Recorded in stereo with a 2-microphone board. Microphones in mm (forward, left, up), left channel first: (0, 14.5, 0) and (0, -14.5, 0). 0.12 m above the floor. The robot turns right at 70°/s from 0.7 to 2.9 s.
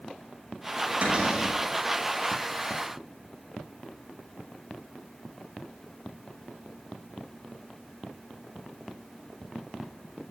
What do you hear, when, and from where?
1.0 s a cupboard door: 45° right, 5.5 m; by 1.6 s 5° right, 5.5 m